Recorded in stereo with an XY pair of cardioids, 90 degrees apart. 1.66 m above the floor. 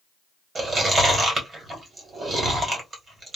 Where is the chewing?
40° right, 1.6 m.